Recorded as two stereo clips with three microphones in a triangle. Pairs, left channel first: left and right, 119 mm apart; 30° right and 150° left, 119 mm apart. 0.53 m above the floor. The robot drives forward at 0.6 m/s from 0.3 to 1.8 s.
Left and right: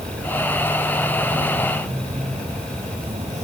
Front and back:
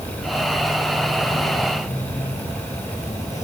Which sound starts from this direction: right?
An insect, at 0.0 s.